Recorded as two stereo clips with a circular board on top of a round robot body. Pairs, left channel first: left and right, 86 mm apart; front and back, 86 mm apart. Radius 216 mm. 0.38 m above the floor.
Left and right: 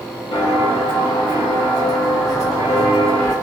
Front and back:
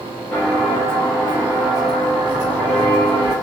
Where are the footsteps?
105° left, 0.8 m; by 3.3 s 150° left, 2.0 m.